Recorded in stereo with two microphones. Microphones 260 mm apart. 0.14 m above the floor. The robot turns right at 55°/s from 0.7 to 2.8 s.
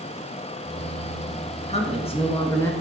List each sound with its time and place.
1.7 s a man speaking: 25° left (ahead or behind), 1.1 m; by 2.7 s 10° left (ahead or behind), 1.1 m